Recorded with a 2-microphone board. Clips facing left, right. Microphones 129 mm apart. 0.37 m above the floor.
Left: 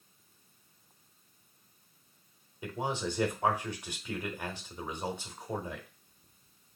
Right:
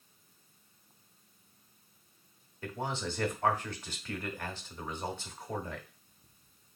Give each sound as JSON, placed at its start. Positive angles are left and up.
{"t": 2.6, "sound": "a man speaking", "side_deg": 15, "distance_m": 0.8}